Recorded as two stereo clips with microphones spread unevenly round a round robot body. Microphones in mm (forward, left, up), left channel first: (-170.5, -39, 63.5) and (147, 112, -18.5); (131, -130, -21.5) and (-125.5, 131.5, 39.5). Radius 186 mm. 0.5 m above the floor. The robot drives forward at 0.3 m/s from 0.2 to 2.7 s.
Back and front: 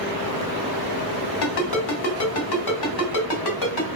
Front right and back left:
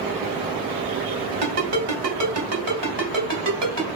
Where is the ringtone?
175° right, 1.5 m.